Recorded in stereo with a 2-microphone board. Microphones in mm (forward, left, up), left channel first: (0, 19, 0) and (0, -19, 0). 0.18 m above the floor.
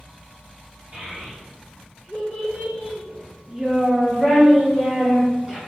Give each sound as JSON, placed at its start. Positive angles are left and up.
{"t": 0.9, "sound": "a child speaking", "side_deg": -35, "distance_m": 1.9}